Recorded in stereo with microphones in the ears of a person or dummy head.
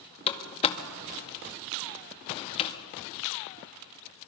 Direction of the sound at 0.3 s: 25° left (ahead or behind).